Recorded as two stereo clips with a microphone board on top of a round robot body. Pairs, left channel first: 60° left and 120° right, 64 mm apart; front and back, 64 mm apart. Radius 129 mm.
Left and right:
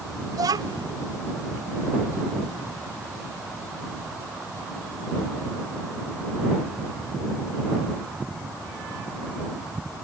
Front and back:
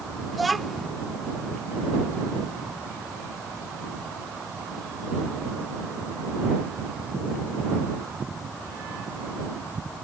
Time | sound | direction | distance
0.3 | a child speaking | 90° right | ?